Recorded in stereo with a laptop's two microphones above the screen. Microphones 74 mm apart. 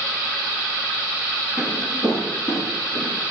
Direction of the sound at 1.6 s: 50° left (ahead or behind).